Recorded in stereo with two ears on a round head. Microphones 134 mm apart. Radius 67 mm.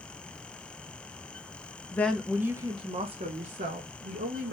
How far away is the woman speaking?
About 0.6 m.